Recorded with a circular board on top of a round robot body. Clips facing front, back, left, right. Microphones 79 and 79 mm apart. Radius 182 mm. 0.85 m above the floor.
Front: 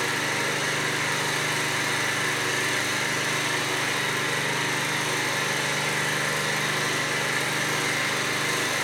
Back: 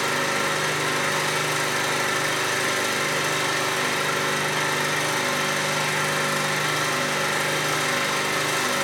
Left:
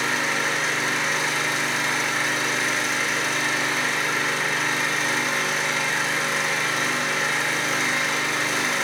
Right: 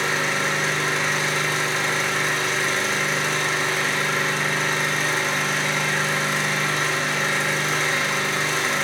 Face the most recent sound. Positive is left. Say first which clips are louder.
# back 3 dB, right 1 dB
turn(degrees=175)